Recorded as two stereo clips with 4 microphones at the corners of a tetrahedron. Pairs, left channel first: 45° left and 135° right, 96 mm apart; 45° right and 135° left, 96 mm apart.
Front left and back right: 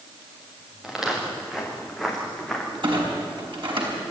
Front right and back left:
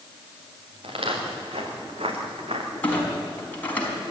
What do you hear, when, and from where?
0.8 s footsteps: 140° left, 4.5 m; by 2.7 s 135° left, 4 m
2.8 s a clunk: 115° right, 4.5 m